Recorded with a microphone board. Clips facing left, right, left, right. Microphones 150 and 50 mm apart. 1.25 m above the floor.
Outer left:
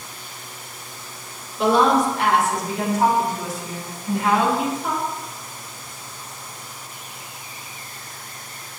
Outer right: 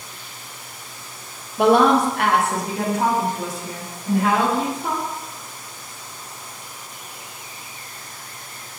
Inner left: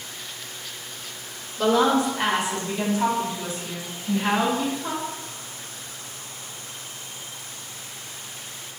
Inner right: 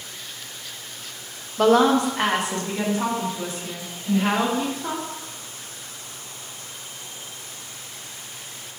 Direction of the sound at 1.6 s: 60° right (ahead or behind).